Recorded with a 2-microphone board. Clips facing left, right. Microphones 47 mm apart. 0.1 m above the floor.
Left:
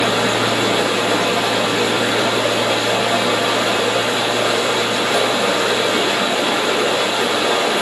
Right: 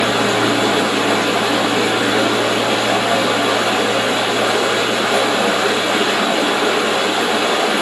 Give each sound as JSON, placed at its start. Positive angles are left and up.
{"t": 0.0, "sound": "running water", "side_deg": -25, "distance_m": 1.3}